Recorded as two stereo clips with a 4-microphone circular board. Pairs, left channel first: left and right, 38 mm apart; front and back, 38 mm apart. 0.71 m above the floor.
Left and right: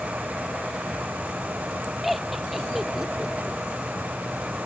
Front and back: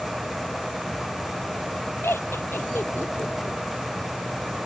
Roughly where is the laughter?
Ahead.